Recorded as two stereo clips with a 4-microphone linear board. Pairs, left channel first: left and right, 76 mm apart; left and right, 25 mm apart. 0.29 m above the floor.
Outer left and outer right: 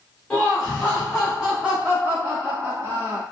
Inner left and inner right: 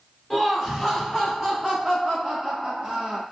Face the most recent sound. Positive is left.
turn(degrees=-40)  # may be behind; listen again after turning